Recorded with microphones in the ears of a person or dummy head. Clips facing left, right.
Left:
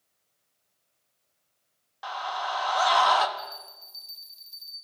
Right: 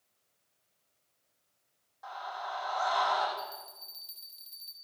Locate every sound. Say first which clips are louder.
2.0 s a scream: left 7 dB; 85° left, 3 m
3.4 s a bell: left 1 dB; 15° right (ahead or behind), 3 m